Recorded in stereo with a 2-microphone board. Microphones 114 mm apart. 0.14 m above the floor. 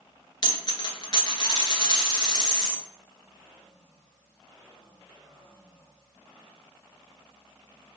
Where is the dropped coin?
45° left (ahead or behind), 1.0 m.